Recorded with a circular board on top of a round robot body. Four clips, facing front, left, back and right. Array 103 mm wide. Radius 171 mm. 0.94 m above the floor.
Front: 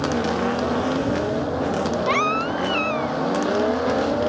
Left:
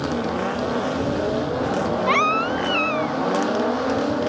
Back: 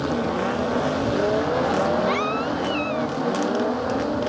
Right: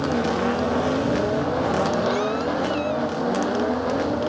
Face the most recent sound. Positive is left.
turn(degrees=65)